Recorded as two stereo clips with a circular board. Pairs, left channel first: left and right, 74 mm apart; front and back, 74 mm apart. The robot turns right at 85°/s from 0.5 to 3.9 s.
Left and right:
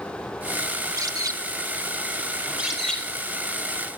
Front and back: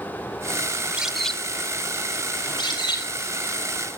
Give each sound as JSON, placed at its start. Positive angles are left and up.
{"t": 0.8, "sound": "a bird", "azimuth_deg": -125, "distance_m": 0.5}
{"t": 2.4, "sound": "a bird", "azimuth_deg": -35, "distance_m": 6.0}